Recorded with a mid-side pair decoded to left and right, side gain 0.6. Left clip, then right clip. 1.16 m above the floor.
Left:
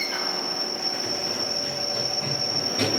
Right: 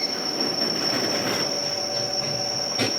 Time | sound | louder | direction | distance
1.1 | running footsteps | right 3 dB | 5° left | 5.5 m